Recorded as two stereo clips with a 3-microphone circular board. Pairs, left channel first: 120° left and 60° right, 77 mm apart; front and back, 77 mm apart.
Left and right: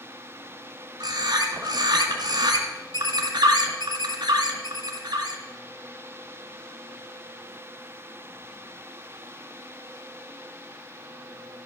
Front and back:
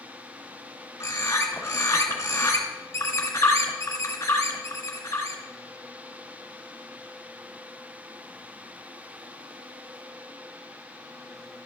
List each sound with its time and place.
1.0 s a bird: 50° right, 1.9 m